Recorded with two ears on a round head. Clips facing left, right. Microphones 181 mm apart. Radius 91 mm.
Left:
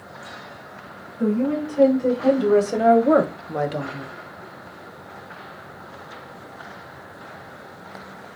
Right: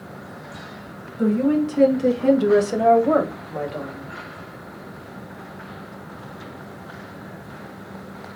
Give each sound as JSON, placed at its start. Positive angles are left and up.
{"t": 1.2, "sound": "a woman speaking", "side_deg": -60, "distance_m": 1.9}